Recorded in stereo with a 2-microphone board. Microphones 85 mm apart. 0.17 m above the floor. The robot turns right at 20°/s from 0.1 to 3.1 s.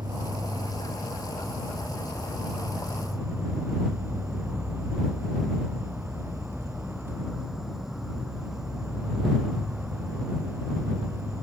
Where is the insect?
65° right; by 11.4 s 5° right.